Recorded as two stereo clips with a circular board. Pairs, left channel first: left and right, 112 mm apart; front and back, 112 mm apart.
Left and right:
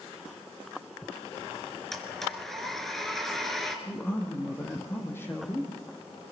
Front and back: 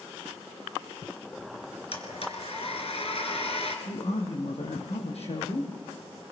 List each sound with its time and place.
1.9 s a blender: 5° left, 3.5 m
3.9 s a man speaking: 20° left, 5.5 m